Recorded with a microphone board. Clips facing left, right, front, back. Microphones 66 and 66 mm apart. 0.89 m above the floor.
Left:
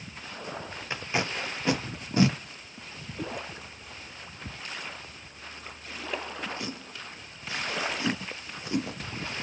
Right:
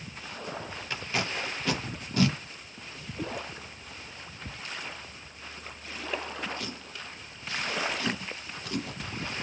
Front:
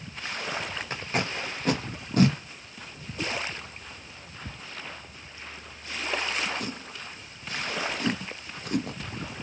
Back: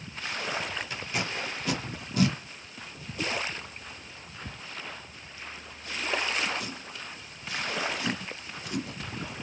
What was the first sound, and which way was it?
Tape being pulled, 25° left.